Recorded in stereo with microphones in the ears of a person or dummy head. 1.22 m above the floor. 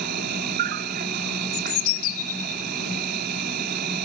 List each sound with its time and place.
0.0 s an insect: 50° right (ahead or behind)
1.5 s a bird: 80° left